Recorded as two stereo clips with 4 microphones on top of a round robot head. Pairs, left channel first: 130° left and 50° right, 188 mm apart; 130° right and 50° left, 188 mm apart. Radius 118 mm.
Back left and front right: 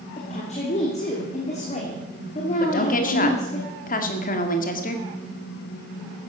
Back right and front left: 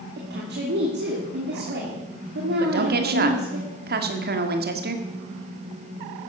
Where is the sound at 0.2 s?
75° left, 2.5 m.